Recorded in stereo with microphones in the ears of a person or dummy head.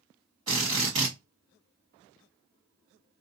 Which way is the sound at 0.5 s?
20° right (ahead or behind).